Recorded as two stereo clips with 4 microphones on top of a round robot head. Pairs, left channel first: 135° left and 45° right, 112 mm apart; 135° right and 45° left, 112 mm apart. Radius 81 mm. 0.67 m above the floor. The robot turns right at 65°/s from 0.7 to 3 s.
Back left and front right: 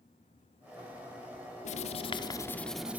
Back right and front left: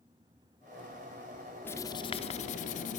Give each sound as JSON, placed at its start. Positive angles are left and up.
{"t": 1.6, "sound": "writing", "azimuth_deg": 150, "distance_m": 0.6}